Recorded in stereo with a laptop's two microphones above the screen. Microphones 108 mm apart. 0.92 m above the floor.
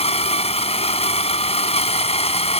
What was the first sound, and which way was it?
A machine running, 75° left (ahead or behind).